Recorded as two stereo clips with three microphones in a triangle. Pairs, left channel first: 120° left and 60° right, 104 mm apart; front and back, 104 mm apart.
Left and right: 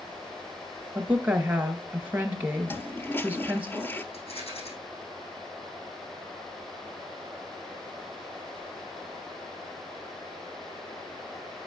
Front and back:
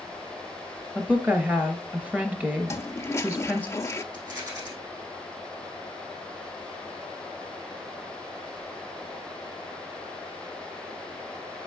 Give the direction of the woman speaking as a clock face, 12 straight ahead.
4 o'clock.